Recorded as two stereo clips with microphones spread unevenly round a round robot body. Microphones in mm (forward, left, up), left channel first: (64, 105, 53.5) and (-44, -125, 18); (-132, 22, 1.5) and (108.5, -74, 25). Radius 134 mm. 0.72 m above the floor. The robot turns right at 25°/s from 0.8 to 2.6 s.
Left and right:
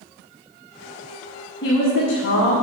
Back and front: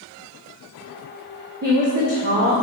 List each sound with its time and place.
1.6 s a woman speaking: 10° left, 1.8 m; by 2.5 s 30° left, 1.8 m